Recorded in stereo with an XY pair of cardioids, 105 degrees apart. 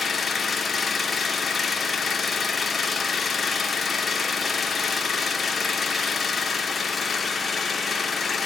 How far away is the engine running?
About 0.8 m.